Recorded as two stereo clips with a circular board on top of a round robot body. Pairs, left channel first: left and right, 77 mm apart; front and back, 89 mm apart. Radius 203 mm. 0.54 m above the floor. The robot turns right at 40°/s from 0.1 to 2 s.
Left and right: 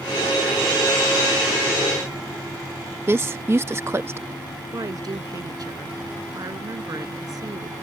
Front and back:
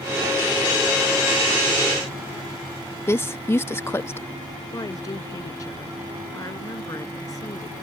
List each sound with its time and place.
3.1 s a woman speaking: 50° right
4.7 s a woman speaking: 50° right